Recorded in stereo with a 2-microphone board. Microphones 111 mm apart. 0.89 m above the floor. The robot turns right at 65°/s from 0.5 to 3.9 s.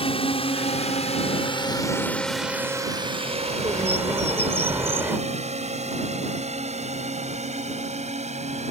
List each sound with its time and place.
0.0 s a drone: 55° left (ahead or behind); by 8.7 s 80° right
3.2 s a bird: 60° right; by 5.2 s 20° right